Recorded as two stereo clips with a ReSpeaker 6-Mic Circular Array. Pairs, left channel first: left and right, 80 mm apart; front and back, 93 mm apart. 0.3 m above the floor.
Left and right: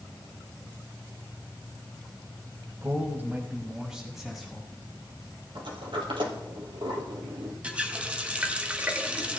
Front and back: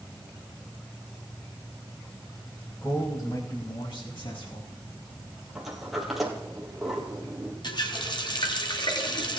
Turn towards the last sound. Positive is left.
turn(degrees=-20)